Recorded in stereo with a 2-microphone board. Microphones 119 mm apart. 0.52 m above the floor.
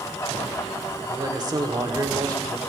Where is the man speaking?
35° right (ahead or behind), 1.7 m.